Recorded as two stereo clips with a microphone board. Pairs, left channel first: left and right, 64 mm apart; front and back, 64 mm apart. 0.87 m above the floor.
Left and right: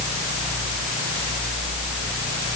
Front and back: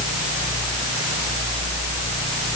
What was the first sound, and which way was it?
Only background noise.